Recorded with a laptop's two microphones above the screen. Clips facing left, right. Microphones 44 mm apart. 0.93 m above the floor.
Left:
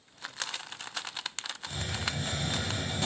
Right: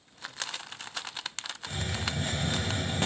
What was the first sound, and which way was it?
A hiss, 45° right (ahead or behind).